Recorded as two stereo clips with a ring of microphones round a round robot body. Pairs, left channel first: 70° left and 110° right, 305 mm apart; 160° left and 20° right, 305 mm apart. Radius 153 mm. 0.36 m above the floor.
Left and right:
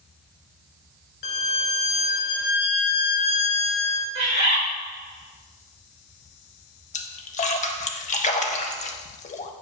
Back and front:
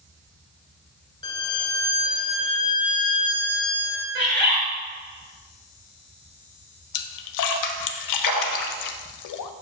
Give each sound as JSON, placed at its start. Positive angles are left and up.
{"t": 1.2, "sound": "a violin", "azimuth_deg": 80, "distance_m": 0.7}
{"t": 4.2, "sound": "a bird", "azimuth_deg": 35, "distance_m": 3.0}
{"t": 6.9, "sound": "a splash", "azimuth_deg": 135, "distance_m": 0.6}